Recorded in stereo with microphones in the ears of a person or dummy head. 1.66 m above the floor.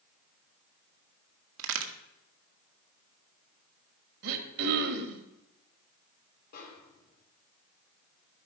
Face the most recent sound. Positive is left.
turn(degrees=45)  # may be behind; listen again after turning